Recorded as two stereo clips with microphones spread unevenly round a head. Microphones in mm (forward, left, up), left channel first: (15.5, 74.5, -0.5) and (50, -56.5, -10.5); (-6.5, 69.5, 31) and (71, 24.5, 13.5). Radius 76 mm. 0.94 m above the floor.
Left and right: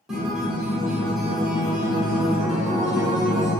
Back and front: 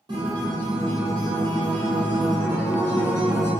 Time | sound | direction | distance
0.1 | a guitar | 15° left | 1.3 m